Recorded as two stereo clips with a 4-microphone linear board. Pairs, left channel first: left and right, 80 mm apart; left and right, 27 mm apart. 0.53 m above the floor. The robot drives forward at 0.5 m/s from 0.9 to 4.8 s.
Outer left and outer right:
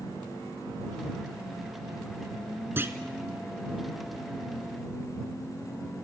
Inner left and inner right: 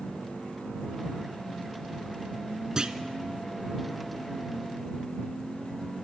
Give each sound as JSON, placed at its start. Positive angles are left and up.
{"t": 2.8, "sound": "a clunk", "side_deg": -25, "distance_m": 1.2}